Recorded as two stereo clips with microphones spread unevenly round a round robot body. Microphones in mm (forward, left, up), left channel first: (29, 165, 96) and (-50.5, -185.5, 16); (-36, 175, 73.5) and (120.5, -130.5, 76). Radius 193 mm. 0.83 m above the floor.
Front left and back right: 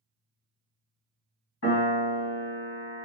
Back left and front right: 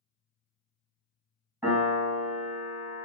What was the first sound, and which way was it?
A piano, 20° left.